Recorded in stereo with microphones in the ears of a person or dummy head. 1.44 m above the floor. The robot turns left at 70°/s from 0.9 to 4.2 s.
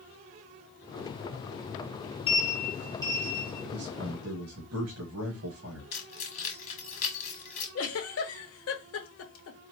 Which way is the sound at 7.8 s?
70° left (ahead or behind).